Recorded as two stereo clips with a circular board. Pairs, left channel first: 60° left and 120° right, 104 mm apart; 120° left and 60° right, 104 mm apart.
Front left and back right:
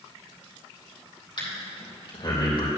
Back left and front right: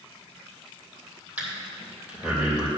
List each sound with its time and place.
1.4 s breathing: 15° left, 3 m